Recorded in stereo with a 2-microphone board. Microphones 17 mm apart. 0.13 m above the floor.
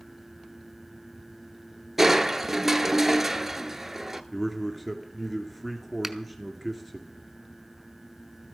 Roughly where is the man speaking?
Centre.